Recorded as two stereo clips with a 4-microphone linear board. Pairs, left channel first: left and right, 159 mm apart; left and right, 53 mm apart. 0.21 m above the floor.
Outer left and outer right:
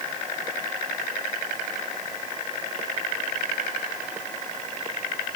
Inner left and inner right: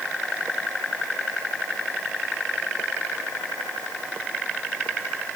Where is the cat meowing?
I don't hear a cat meowing.